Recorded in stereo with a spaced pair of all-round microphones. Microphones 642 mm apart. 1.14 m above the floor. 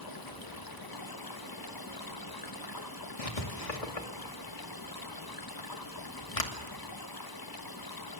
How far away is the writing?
About 2.5 m.